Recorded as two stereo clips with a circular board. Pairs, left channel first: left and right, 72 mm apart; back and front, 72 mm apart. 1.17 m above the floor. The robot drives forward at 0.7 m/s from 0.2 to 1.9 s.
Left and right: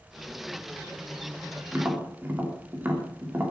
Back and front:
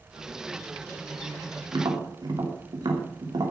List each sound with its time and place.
1.7 s tapping: 25° right, 3 m